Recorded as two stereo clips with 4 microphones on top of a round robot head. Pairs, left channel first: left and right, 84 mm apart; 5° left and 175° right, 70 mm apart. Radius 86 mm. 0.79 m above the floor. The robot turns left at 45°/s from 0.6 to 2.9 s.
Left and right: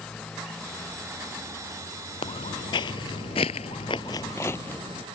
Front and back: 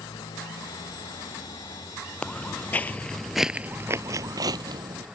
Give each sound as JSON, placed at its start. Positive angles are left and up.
{"t": 0.0, "sound": "a motorcycle", "azimuth_deg": 10}
{"t": 2.2, "sound": "footsteps", "azimuth_deg": 75}